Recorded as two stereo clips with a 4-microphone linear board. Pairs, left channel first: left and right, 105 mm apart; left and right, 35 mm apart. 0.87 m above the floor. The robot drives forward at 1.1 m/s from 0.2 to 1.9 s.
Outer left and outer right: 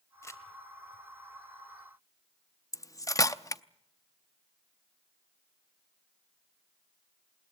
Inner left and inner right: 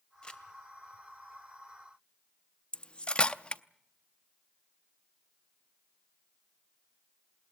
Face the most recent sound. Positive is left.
turn(degrees=30)  # may be behind; listen again after turning